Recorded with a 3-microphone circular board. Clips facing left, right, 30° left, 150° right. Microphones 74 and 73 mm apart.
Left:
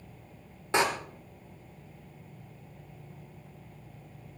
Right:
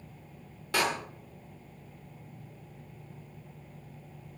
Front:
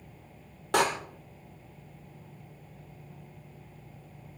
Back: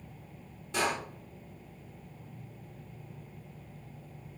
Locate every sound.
0.7 s a door slam: 25° left, 1.8 m